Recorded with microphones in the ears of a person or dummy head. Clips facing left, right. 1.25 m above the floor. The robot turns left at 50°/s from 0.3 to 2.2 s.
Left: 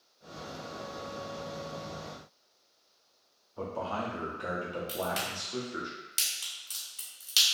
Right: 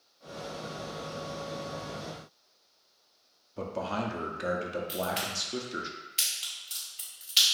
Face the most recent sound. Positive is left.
turn(degrees=65)  # may be behind; listen again after turning